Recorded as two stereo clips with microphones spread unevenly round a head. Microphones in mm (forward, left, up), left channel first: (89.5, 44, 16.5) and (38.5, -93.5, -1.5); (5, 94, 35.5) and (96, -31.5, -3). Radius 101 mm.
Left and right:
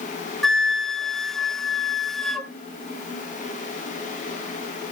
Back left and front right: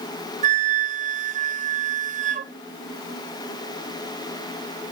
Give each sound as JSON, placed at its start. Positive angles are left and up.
{"t": 0.4, "sound": "a flute", "azimuth_deg": -20, "distance_m": 1.1}